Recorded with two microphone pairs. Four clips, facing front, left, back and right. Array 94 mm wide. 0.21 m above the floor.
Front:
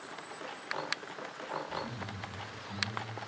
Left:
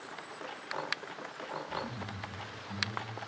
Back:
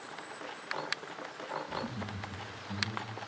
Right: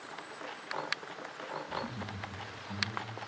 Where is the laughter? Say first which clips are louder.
Even, back 1 dB; 150° right, 4.5 m; by 3.1 s 165° right, 4.5 m.